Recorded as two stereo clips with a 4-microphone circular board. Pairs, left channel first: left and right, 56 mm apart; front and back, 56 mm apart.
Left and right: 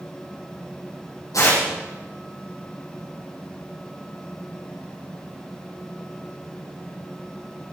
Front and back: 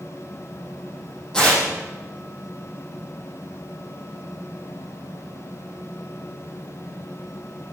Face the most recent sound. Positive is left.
turn(degrees=80)